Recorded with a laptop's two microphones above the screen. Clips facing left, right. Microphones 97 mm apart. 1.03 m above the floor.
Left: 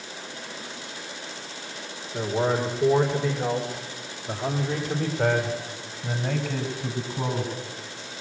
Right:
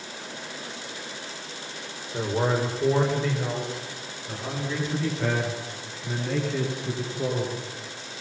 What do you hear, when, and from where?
2.1 s a man speaking: 10° right (ahead or behind), 3.5 m; by 7.5 s 65° left (ahead or behind), 8 m